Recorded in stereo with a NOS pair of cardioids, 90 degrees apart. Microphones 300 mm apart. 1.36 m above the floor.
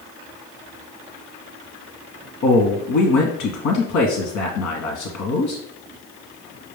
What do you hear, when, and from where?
2.4 s a man speaking: 70° left, 1.0 m